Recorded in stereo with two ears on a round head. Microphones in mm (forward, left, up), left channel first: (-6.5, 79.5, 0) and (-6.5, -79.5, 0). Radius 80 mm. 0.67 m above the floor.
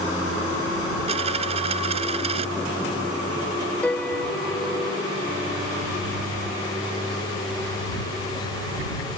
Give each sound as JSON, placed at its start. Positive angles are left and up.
{"t": 1.1, "sound": "a dropped coin", "side_deg": -35}
{"t": 3.8, "sound": "a piano", "side_deg": 5}